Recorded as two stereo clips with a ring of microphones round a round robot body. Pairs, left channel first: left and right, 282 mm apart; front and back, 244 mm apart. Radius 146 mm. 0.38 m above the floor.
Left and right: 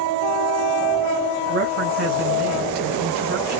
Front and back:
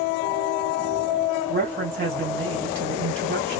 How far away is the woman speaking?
About 2 m.